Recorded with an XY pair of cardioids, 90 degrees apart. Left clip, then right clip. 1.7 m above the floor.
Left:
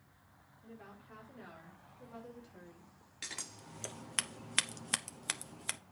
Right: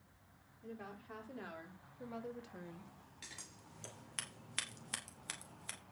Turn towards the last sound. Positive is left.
turn(degrees=65)